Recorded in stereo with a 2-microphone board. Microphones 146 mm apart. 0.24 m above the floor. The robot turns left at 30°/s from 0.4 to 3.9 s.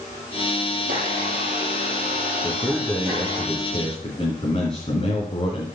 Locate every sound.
0.8 s a blender: 70° right, 5.5 m; by 3.4 s 150° right, 5.5 m
2.4 s a man speaking: straight behind, 2.5 m; by 5.7 s 135° left, 2.5 m